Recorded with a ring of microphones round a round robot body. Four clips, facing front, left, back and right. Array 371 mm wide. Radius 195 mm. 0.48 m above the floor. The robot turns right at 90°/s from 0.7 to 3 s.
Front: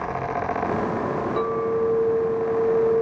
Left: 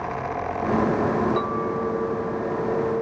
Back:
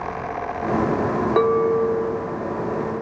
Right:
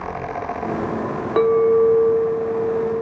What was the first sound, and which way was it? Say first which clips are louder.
A clink: right 10 dB, back 6 dB; 145° right.